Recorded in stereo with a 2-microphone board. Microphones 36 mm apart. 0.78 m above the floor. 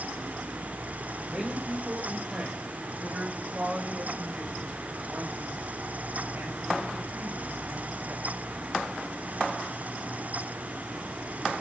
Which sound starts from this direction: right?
A man speaking, at 1.3 s.